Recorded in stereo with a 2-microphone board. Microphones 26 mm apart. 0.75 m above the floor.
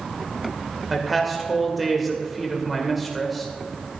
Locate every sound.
0.9 s a man speaking: 5° right (ahead or behind), 2 m